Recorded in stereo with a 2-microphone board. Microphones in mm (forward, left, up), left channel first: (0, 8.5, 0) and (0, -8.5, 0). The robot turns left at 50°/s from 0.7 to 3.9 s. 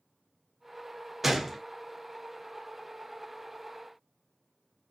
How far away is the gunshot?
About 0.5 m.